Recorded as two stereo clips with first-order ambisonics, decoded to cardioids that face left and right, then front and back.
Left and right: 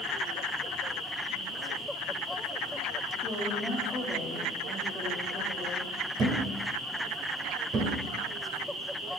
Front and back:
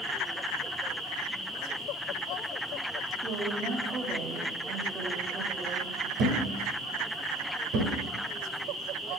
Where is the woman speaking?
155° left, 1.0 m.